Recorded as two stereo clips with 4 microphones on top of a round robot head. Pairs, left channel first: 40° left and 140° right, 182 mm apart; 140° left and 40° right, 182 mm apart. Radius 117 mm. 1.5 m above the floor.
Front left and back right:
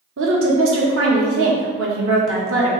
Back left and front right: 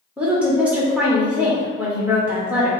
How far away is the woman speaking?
About 1.0 m.